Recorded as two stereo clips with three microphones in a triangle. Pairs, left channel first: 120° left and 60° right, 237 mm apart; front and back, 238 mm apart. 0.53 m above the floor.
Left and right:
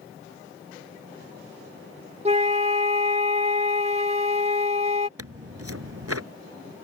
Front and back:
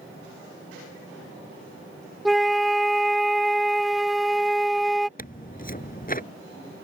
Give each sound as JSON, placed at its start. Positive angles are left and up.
{"t": 2.2, "sound": "a flute", "azimuth_deg": -90}
{"t": 5.2, "sound": "tearing paper", "azimuth_deg": -55}